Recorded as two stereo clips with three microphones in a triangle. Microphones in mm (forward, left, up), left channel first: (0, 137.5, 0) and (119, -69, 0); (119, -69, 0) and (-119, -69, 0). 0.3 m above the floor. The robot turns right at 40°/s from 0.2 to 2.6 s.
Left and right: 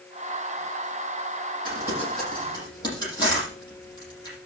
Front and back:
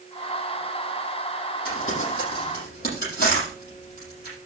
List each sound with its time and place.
1.6 s crumpling: 10° left, 7.5 m; by 4.4 s 50° left, 7.5 m